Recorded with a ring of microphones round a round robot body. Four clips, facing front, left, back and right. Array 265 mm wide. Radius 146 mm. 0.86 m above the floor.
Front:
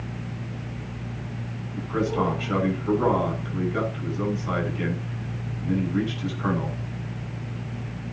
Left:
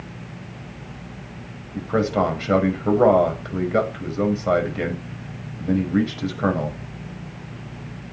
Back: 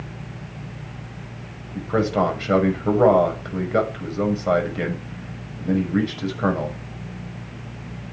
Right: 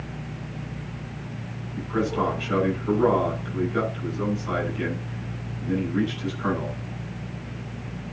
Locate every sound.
1.8 s a man speaking: 135° left, 6 m